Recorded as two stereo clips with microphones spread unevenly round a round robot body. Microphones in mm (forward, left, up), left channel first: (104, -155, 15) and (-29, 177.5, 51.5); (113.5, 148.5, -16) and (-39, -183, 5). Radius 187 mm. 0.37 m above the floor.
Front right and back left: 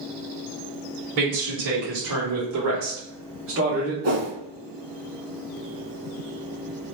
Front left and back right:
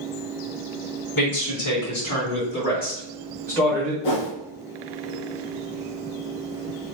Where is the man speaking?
85° left, 1.9 m; by 3.9 s 160° left, 1.2 m.